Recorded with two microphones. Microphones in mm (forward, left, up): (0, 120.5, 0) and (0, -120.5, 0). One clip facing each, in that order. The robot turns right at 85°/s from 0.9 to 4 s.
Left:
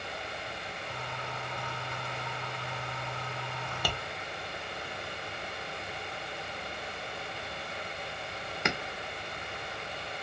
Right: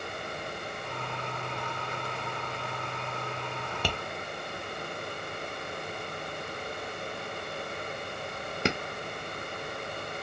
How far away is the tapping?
About 0.5 m.